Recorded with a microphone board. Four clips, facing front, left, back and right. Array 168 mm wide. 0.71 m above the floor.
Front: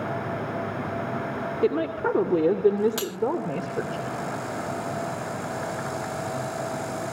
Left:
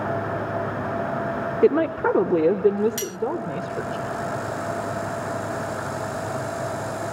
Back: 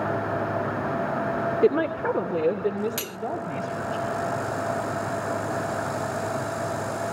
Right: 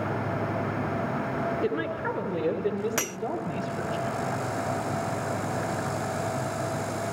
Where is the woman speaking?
100° left, 2.0 m; by 4.0 s 25° left, 3 m.